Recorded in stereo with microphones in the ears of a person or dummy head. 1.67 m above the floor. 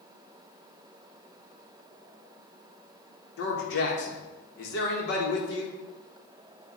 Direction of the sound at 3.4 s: 65° left (ahead or behind).